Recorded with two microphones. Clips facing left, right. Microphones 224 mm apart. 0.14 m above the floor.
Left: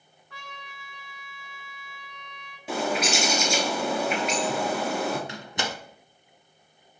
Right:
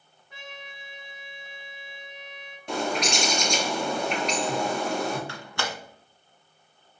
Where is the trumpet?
20° right (ahead or behind), 1.0 m.